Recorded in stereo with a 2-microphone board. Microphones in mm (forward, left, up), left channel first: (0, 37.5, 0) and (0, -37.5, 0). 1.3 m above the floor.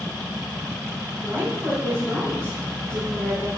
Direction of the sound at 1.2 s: 30° right (ahead or behind).